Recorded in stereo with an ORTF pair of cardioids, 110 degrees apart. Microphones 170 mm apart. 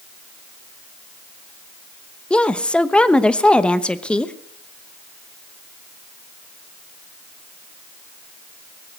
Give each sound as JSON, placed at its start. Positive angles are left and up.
{"t": 2.3, "sound": "a woman speaking", "azimuth_deg": 5, "distance_m": 1.0}